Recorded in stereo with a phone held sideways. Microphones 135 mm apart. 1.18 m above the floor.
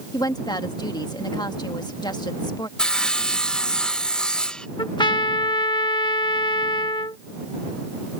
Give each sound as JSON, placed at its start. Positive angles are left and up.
{"t": 0.1, "sound": "a woman speaking", "side_deg": 30}
{"t": 2.8, "sound": "sawing", "side_deg": 5}
{"t": 4.8, "sound": "a trumpet", "side_deg": 35}